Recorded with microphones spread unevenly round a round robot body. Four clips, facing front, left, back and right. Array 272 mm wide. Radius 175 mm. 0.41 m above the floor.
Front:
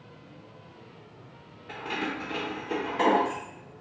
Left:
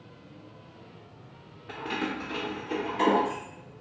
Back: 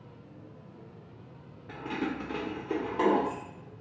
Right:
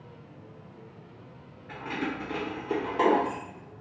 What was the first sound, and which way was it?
Keys jangling, 110° left.